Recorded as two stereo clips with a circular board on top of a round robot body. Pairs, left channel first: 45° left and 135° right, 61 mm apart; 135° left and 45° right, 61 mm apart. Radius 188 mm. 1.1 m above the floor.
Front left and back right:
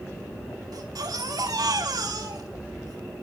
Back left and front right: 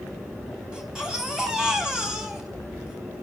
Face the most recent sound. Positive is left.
turn(degrees=-125)